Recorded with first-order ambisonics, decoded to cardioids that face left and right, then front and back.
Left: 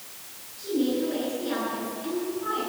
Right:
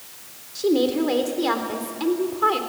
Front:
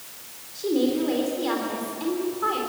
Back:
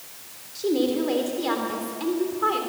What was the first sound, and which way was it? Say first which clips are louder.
A woman speaking: right 7 dB, even; 100° right.